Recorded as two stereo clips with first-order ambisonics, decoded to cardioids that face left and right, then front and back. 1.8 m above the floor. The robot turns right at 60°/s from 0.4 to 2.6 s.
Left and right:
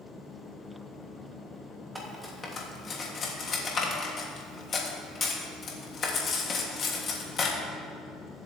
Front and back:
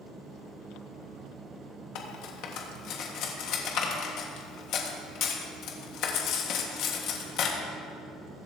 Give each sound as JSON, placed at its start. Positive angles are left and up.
{"t": 1.9, "sound": "cutlery clinking", "azimuth_deg": -10, "distance_m": 1.6}